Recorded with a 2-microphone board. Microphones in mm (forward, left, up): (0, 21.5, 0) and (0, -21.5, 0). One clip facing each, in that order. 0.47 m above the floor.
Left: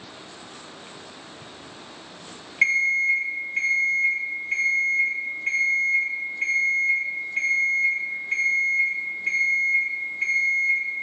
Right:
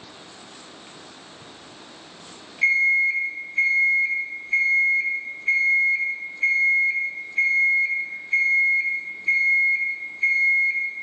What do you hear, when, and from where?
2.6 s an alarm clock: 55° left (ahead or behind), 0.8 m